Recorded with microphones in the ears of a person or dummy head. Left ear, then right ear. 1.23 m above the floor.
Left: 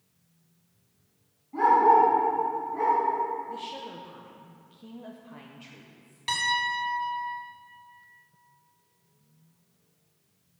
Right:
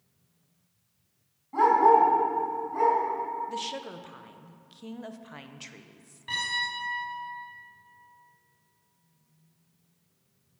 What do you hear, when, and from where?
1.5 s a dog barking: 55° right (ahead or behind), 3.5 m; by 3.0 s 80° right, 4.5 m
3.5 s a woman speaking: 55° right (ahead or behind), 0.6 m
6.3 s a piano: 85° left, 3 m